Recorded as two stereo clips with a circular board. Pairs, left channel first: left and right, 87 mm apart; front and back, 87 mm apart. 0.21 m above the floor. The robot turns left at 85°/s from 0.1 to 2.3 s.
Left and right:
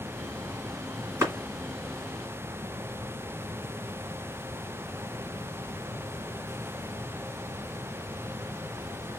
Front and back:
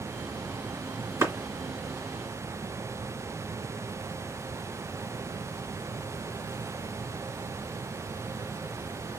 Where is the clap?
135° right, 1.8 m; by 1.3 s 145° right, 1.8 m.